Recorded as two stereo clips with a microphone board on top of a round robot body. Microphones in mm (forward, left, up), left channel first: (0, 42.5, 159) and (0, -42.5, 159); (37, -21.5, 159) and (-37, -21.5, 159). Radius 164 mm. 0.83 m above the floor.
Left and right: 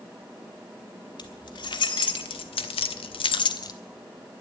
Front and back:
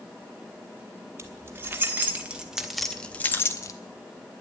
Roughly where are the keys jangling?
Behind left.